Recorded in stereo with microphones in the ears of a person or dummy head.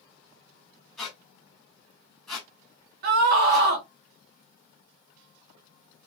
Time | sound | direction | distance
1.0 | a squeak | 5° left (ahead or behind) | 2 m
3.0 | a scream | 55° right (ahead or behind) | 1.2 m